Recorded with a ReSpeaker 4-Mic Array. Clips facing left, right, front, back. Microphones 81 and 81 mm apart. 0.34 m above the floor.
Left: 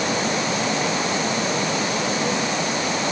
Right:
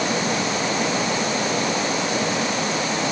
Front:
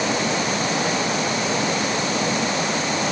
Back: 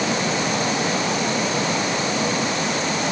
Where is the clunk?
No clunk in this recording.